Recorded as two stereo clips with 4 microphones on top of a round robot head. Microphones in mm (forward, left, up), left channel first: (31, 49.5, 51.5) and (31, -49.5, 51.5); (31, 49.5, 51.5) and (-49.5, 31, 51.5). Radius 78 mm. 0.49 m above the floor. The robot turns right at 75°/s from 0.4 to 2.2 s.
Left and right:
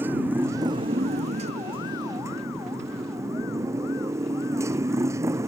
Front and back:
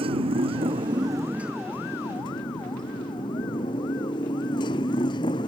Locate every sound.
0.0 s a motorcycle: 165° right; by 5.5 s 30° right